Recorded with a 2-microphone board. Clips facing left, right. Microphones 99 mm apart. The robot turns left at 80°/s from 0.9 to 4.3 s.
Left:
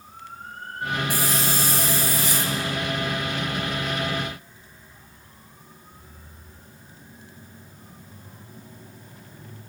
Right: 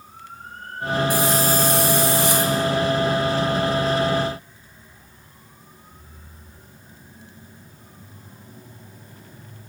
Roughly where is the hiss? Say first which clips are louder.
Right 6 dB; ahead.